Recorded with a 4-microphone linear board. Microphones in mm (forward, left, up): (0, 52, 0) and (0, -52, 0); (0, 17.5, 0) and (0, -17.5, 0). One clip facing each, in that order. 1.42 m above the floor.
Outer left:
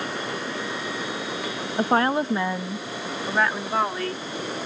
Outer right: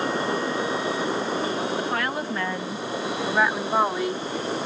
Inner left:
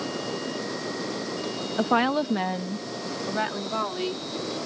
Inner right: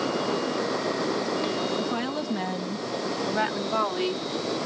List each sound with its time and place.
1.8 s a woman speaking: 45° left (ahead or behind); by 4.2 s 15° right (ahead or behind)